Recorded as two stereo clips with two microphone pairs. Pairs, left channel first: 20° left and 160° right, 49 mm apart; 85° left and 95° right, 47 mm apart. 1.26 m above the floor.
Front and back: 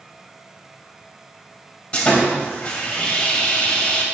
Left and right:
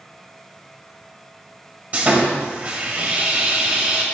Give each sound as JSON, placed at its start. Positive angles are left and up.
{"t": 1.9, "sound": "sawing", "azimuth_deg": -45, "distance_m": 1.4}